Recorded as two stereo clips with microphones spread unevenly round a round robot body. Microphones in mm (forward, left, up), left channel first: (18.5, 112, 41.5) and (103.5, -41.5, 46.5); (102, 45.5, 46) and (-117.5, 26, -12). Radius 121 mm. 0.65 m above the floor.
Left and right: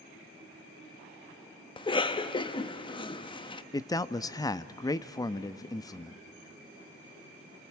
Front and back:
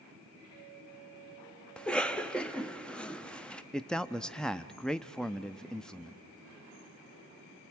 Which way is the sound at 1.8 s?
115° left.